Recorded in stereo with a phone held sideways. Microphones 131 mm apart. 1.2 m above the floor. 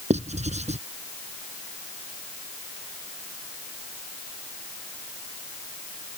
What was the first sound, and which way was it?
Writing, 60° right (ahead or behind).